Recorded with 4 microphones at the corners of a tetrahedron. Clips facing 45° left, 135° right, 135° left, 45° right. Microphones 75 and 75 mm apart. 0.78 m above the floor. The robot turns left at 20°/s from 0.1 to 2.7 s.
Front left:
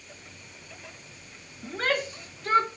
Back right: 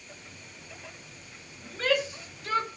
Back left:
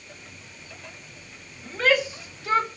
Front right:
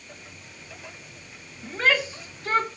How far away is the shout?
About 2 m.